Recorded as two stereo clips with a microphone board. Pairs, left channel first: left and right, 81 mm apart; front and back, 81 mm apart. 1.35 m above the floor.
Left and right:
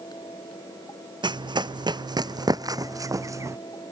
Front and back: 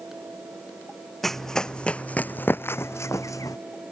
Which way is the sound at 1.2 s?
85° right.